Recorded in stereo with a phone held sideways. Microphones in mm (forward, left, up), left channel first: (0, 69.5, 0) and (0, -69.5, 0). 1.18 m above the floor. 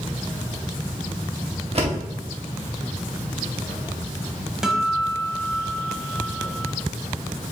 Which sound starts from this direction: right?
A door slam, at 1.8 s.